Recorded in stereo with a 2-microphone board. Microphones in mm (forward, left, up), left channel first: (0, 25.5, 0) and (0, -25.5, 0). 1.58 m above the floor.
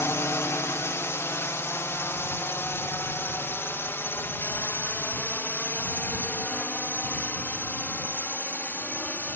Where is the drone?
60° left (ahead or behind); by 9.4 s 35° left (ahead or behind).